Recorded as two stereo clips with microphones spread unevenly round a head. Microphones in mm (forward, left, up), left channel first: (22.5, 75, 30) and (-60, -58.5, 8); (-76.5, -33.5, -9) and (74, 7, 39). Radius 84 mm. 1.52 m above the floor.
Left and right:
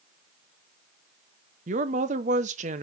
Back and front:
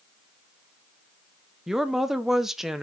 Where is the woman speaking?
70° right, 0.9 m.